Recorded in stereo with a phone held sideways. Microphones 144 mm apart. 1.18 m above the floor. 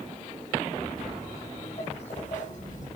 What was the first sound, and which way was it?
Footsteps, 30° left (ahead or behind).